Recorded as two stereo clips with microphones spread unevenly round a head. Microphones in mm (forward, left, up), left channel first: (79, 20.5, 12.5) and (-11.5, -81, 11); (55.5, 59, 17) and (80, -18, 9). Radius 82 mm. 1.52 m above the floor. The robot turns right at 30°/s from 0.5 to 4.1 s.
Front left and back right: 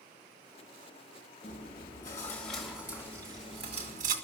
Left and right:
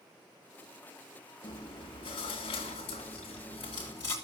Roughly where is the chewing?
Left.